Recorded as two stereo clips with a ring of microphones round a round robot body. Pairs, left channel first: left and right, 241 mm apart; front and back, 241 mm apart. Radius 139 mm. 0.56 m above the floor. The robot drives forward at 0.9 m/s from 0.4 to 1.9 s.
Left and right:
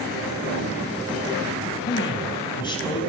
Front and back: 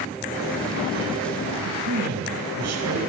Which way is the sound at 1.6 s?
160° left.